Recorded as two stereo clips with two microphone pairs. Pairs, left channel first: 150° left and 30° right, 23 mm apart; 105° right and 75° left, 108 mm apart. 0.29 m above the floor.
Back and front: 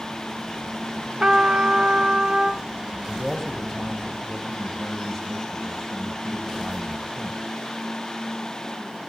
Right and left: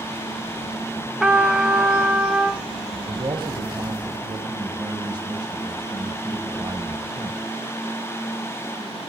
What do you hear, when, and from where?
1.2 s a trumpet: 5° right, 1.0 m
2.9 s a man speaking: 90° left, 1.9 m